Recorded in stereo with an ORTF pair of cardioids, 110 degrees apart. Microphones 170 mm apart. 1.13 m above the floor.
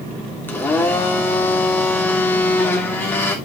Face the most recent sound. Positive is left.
turn(degrees=10)